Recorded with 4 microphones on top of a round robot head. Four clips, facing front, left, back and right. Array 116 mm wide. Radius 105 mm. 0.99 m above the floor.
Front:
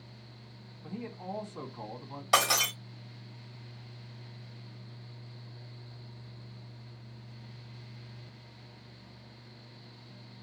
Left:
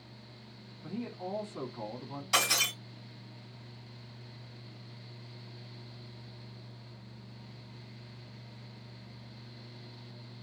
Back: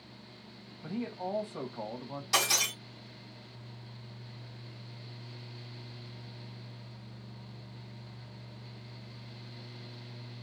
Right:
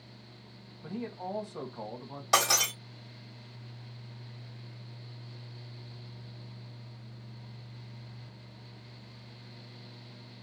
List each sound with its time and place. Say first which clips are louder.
0.8 s a man speaking: right 1 dB, back 4 dB; 150° right, 1.5 m
2.3 s breaking glass: right 5 dB, front 5 dB; 50° right, 1.1 m